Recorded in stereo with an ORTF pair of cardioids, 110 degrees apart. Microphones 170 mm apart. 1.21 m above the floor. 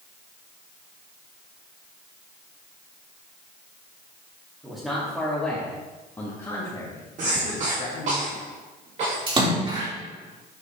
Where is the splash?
30° right, 3.5 m.